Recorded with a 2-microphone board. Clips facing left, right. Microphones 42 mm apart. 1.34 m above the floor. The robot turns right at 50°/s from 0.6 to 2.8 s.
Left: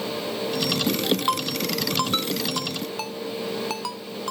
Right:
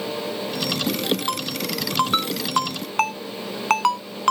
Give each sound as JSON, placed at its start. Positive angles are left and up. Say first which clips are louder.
{"t": 1.3, "sound": "a ringtone", "louder": "left 2 dB", "side_deg": 15}